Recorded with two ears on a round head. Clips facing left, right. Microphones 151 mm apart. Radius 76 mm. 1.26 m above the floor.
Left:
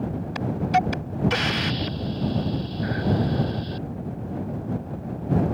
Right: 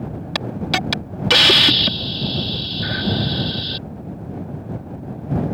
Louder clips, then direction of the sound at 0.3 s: Left 2 dB; 80° right.